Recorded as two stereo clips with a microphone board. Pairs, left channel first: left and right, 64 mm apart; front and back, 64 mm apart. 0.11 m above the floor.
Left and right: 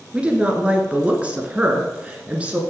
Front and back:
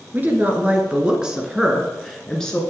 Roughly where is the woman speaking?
Behind right.